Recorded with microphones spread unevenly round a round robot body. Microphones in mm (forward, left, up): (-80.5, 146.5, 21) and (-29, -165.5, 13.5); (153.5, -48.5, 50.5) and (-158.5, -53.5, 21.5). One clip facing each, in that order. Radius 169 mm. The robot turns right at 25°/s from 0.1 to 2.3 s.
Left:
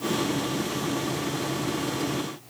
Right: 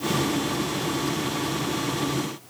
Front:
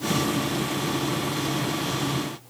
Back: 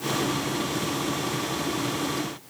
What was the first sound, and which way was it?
Only background noise.